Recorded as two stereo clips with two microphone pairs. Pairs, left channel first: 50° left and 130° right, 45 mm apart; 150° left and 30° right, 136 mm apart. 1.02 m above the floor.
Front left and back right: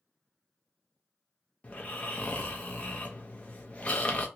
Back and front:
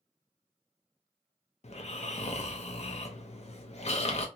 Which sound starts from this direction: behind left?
Snoring, at 1.6 s.